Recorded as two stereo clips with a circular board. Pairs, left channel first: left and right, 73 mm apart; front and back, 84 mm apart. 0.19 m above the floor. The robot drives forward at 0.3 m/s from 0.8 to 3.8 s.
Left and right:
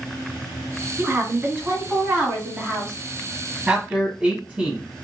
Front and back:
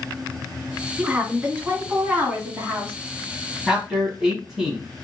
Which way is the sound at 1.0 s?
110° right.